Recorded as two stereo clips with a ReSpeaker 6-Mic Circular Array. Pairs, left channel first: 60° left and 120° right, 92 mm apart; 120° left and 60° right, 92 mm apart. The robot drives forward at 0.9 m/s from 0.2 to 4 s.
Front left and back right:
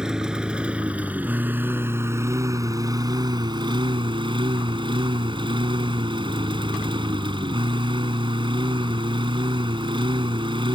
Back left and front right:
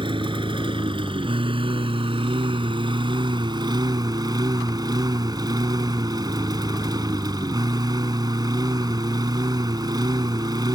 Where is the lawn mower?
35° right; by 10.8 s 100° right.